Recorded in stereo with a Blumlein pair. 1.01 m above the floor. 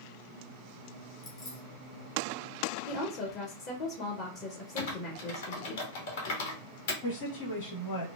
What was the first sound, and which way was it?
Keys jangling, 35° left.